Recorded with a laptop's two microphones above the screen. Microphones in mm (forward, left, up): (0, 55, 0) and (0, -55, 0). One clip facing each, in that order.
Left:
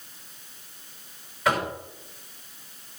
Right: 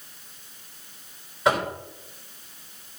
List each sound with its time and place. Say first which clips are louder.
1.4 s knocking: right 2 dB; 25° right (ahead or behind), 3.5 m